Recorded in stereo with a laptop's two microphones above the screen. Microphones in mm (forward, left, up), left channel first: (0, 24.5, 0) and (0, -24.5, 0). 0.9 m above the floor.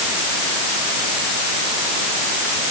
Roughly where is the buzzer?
No buzzer in this recording.